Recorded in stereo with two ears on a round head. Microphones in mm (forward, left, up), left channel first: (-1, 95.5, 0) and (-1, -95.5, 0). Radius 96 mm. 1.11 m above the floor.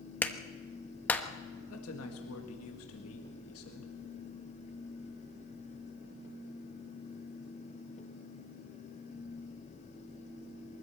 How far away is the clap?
About 1.0 m.